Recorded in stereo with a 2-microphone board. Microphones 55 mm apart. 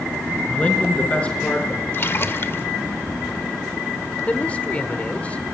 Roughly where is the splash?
Left.